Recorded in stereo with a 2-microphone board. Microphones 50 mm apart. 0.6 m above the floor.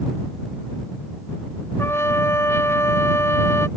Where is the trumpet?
75° left (ahead or behind).